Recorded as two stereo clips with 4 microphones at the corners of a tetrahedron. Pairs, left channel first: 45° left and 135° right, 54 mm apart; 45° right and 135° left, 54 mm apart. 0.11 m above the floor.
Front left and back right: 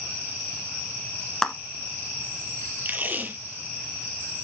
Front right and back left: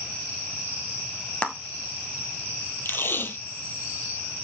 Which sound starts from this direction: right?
Tape being pulled, at 2.9 s.